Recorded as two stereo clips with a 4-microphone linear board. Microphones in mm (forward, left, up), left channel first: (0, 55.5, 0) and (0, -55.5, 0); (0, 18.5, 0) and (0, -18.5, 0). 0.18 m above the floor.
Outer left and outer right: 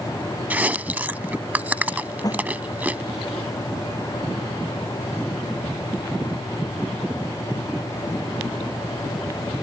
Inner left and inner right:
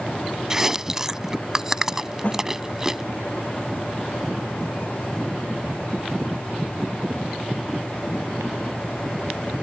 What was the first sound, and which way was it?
Chewing, 15° right (ahead or behind).